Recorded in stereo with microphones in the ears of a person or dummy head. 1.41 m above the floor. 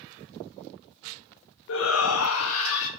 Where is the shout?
65° left (ahead or behind), 0.7 m; by 2.9 s 75° left (ahead or behind), 1.3 m.